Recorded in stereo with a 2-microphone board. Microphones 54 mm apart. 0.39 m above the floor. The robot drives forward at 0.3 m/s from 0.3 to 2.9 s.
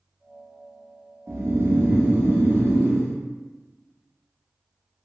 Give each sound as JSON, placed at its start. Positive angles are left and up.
{"t": 1.3, "sound": "snoring", "side_deg": -50, "distance_m": 0.9}